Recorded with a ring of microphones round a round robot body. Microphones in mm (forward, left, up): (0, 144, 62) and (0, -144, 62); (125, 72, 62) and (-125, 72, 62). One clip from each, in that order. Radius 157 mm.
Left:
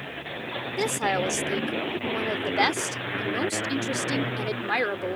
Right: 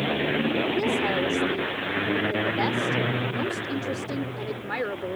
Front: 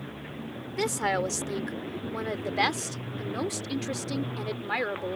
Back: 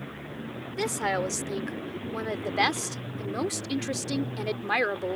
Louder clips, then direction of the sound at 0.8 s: Right 1 dB, front 1 dB; 80° left.